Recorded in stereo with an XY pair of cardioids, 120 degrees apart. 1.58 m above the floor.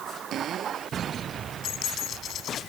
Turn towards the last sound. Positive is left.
turn(degrees=60)